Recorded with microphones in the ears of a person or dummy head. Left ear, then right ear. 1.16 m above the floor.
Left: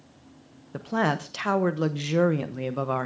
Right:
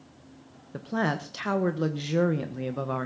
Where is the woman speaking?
20° left (ahead or behind), 1.0 m.